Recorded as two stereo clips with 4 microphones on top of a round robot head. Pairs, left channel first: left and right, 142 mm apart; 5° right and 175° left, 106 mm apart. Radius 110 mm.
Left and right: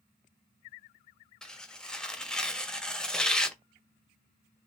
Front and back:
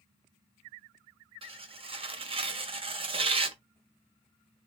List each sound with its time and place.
1.4 s tearing paper: 175° left, 0.7 m